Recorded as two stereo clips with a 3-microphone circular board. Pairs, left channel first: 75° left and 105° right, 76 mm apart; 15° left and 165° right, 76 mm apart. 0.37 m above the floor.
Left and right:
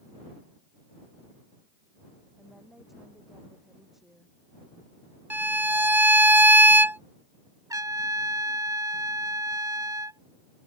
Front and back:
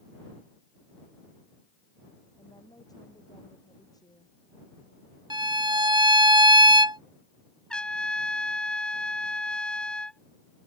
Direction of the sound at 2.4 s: 20° right.